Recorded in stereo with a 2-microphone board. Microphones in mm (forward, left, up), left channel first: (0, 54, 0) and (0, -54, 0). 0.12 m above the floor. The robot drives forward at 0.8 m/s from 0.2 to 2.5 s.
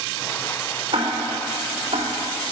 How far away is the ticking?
About 4 m.